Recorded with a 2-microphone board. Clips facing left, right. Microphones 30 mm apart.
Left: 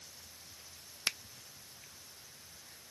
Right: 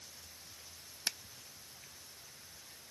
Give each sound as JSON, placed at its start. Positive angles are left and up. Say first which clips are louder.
{"t": 1.1, "sound": "a finger snap", "louder": "left 3 dB", "side_deg": 30}